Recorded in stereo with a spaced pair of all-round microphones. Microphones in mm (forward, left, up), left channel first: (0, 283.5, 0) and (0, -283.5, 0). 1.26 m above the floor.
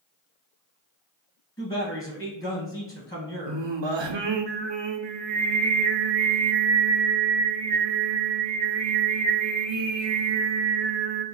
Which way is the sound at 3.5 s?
55° right (ahead or behind).